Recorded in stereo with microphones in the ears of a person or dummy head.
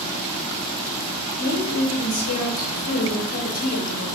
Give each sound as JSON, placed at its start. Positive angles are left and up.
{"t": 1.4, "sound": "a woman speaking", "side_deg": 55, "distance_m": 1.8}